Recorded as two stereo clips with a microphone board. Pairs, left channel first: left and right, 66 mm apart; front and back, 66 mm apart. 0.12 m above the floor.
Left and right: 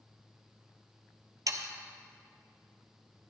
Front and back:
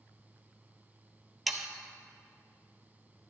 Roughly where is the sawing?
Right.